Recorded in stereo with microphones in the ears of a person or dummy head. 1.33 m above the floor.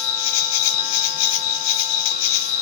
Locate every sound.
0.0 s an insect: 85° left, 0.7 m